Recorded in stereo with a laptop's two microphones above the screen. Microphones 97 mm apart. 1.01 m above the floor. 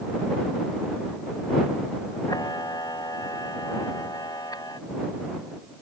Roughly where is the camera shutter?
Left.